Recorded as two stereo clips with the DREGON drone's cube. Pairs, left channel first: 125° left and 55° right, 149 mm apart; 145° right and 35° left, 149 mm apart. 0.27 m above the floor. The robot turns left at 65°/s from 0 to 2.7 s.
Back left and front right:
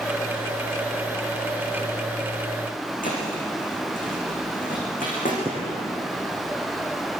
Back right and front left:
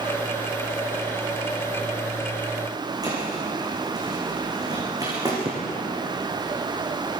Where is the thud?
100° left, 9 m.